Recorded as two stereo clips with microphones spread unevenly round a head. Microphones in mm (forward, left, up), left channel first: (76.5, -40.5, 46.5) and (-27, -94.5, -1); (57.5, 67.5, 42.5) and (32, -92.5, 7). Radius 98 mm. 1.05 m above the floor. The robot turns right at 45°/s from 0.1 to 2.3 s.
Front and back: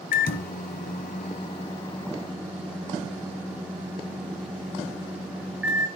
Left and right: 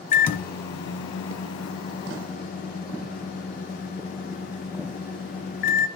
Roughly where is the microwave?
Ahead left.